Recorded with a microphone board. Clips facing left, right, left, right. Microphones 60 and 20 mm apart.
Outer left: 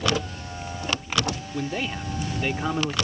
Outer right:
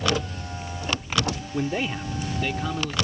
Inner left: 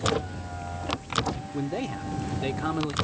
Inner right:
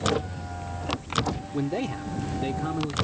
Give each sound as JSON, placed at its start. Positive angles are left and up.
{"t": 1.5, "sound": "a man speaking", "side_deg": -15}